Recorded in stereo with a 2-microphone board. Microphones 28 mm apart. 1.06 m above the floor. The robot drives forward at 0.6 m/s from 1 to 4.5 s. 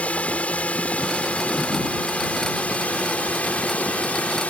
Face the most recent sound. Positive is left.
turn(degrees=70)  # may be behind; listen again after turning